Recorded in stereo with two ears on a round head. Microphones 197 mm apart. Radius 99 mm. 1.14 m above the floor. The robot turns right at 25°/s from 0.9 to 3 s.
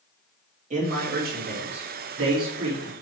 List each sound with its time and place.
0.7 s a man speaking: 145° right, 2.5 m; by 2.9 s 95° right, 2.5 m